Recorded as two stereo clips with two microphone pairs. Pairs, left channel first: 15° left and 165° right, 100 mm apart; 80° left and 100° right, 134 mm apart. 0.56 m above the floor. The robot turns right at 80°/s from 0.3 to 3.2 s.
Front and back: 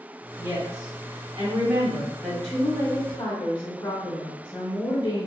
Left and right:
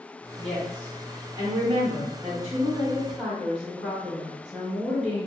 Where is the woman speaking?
155° left, 1.1 m; by 5.3 s 20° left, 1.1 m.